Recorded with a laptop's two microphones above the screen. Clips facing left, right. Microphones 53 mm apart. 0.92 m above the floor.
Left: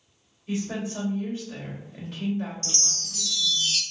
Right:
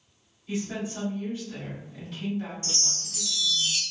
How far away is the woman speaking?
About 2.0 m.